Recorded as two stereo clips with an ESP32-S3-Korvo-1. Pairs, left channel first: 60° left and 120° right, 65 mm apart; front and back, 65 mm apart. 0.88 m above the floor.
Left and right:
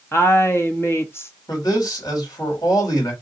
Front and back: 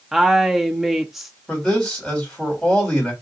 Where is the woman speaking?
95° left, 0.8 m.